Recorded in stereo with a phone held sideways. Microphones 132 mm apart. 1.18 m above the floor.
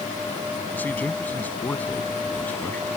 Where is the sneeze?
I don't hear a sneeze.